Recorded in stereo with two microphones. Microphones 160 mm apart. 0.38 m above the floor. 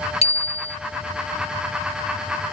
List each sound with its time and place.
0.2 s a bicycle bell: 45° left (ahead or behind)